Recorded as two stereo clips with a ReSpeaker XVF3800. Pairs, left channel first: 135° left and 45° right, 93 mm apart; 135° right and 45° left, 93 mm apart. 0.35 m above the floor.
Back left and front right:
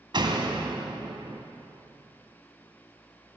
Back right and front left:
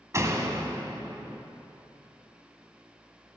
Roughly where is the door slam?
Ahead.